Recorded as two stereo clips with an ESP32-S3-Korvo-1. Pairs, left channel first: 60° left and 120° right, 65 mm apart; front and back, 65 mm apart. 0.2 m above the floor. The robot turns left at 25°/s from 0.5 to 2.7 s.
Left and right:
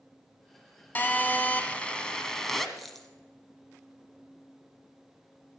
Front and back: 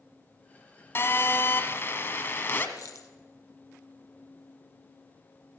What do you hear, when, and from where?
0.9 s a phone buzzing: 20° left, 1.5 m; by 2.7 s 25° right, 1.5 m
2.8 s a dropped coin: 30° right, 1.3 m